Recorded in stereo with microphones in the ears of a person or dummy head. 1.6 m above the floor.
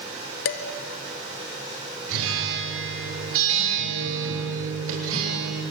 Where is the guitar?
75° right (ahead or behind), 7.5 m.